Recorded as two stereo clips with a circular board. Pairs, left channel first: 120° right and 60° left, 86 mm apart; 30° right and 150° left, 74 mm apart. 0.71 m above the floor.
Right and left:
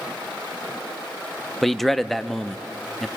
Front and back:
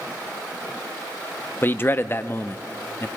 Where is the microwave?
No microwave in this recording.